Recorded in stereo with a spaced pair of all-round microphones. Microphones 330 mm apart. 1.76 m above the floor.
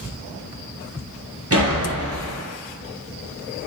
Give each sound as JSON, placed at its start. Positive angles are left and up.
{"t": 1.5, "sound": "a door slam", "side_deg": -45, "distance_m": 0.9}